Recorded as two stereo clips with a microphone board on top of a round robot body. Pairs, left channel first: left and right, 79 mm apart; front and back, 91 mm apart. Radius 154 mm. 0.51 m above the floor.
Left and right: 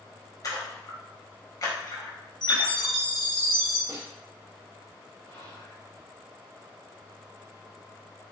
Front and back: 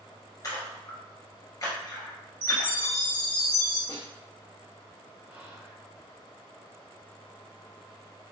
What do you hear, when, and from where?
0.4 s a splash: 50° left, 1.8 m
2.4 s a chime: 70° left, 2 m
3.9 s a snare drum: 40° right, 1.5 m
5.3 s whispering: 105° left, 2 m